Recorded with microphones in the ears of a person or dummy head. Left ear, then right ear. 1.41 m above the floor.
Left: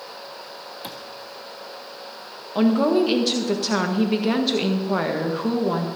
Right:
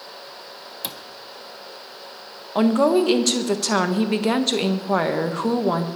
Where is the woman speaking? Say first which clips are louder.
Right 2 dB; 30° right (ahead or behind), 1.4 m.